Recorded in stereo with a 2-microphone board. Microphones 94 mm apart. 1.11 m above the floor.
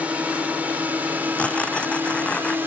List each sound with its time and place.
0.0 s a drone: 15° right (ahead or behind); by 2.7 s 20° right (ahead or behind)
1.4 s tearing paper: 15° left (ahead or behind)